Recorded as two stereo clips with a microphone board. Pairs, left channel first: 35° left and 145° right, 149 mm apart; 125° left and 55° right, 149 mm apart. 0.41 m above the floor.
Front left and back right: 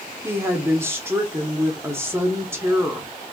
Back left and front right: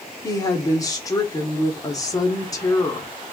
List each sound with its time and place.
0.2 s a woman speaking: 160° left, 1.2 m